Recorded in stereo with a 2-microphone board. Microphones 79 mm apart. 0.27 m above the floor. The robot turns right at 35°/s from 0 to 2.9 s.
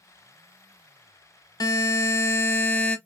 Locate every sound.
1.6 s a buzzer: 105° left, 0.7 m; by 3.0 s 150° left, 0.7 m